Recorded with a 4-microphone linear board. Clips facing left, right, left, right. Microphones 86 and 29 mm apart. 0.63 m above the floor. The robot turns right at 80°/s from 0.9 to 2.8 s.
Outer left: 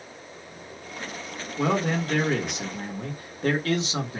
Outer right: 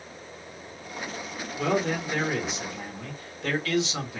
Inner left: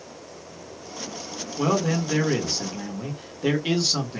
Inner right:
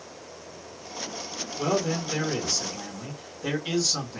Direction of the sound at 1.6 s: 35° left.